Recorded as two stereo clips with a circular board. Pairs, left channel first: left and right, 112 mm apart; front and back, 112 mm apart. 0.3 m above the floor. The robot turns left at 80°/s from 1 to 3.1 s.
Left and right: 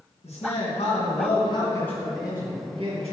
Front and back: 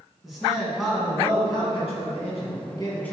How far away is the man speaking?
About 3 m.